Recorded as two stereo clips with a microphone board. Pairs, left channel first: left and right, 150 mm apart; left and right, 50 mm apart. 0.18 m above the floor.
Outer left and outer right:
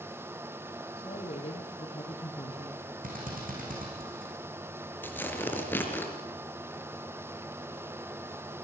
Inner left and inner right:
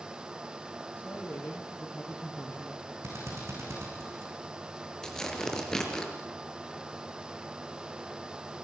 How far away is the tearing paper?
About 4 m.